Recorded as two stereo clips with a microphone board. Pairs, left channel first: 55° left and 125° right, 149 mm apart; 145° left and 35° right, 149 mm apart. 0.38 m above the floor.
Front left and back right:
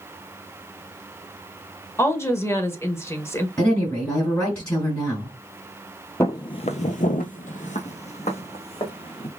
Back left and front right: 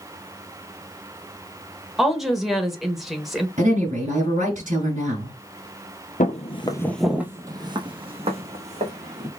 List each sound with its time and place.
2.0 s a woman speaking: 50° left, 0.8 m
3.6 s a woman speaking: 15° right, 2 m
6.2 s footsteps: 125° left, 0.6 m; by 9.3 s 5° left, 1.8 m